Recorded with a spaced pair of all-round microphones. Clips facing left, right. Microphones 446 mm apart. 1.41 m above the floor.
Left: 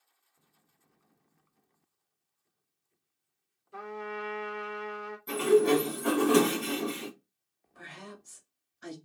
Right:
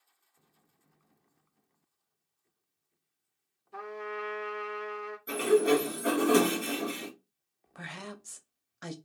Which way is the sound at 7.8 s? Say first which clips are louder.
Right 3 dB; 85° right.